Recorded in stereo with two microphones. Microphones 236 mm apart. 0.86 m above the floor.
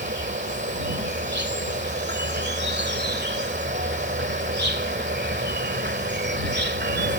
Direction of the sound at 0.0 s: 45° right (ahead or behind).